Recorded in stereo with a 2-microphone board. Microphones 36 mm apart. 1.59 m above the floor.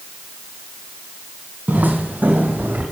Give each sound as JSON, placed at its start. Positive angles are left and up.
{"t": 1.7, "sound": "footsteps", "side_deg": -50, "distance_m": 2.5}